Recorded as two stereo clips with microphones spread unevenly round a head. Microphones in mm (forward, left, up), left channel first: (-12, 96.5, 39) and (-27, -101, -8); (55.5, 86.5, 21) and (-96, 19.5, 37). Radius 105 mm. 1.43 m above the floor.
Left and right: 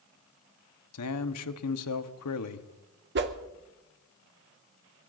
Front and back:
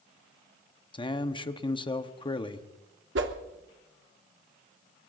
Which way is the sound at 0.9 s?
80° left.